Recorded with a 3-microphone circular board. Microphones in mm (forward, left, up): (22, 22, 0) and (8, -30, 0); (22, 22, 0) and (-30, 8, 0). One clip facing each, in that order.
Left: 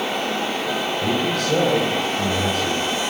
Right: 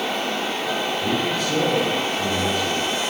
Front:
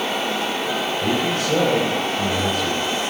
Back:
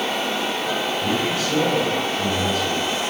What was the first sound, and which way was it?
A man speaking, 60° left.